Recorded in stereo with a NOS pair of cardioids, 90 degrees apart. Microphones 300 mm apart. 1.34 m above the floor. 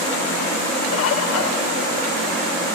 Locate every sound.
0.9 s a bird: 55° left, 1.0 m